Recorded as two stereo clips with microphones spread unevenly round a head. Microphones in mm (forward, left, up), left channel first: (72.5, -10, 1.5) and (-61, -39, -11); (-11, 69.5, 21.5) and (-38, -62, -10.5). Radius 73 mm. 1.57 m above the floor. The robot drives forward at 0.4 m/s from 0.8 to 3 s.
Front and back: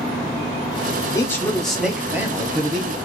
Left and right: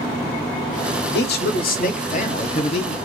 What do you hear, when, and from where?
1.1 s a man speaking: 85° left, 0.7 m; by 3.0 s 130° left, 1.0 m